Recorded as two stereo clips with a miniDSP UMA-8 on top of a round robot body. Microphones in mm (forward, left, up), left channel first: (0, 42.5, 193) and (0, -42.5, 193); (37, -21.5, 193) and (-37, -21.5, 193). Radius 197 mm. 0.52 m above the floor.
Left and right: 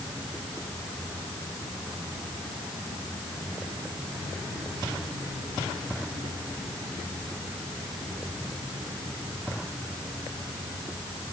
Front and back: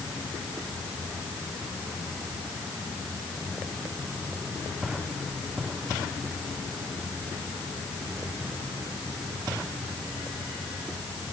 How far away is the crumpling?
No crumpling in this recording.